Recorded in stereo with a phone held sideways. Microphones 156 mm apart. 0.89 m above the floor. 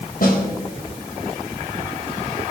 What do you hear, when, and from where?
0.2 s a snare drum: 65° left (ahead or behind), 3 m